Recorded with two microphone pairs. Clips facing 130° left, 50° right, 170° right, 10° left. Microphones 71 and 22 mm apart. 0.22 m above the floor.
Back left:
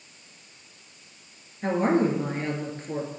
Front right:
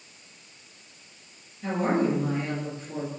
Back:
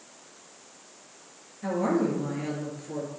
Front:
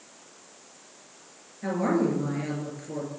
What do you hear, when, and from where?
1.6 s a woman speaking: 90° left, 3 m